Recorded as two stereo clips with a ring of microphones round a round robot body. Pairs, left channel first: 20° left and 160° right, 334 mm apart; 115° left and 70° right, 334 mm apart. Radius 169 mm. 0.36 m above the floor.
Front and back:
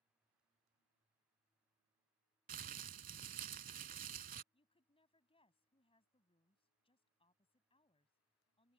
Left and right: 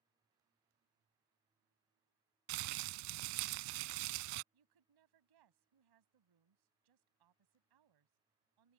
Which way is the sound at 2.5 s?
90° right.